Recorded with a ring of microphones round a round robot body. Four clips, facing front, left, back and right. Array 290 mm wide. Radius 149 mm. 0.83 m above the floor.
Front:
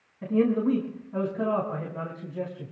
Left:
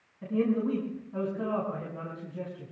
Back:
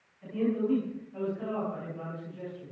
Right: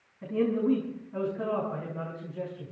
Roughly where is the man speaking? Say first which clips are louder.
Right 1 dB, front 6 dB; ahead.